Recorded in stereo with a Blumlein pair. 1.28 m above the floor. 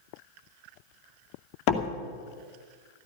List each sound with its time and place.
1.7 s a door slam: 40° left, 2.5 m